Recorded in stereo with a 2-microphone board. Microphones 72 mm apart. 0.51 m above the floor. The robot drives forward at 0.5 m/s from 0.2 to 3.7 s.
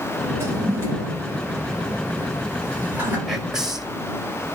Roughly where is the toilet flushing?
Right.